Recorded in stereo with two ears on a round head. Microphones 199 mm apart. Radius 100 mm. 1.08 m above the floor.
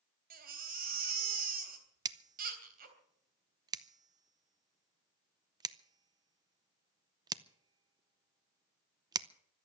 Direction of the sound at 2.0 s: 20° right (ahead or behind).